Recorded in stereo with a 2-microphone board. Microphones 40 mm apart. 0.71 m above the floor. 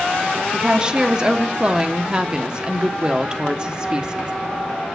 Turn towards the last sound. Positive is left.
turn(degrees=-20)  # may be behind; listen again after turning